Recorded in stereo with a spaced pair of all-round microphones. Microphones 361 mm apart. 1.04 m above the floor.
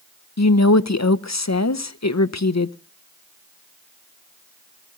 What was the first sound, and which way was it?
A woman speaking, 50° left (ahead or behind).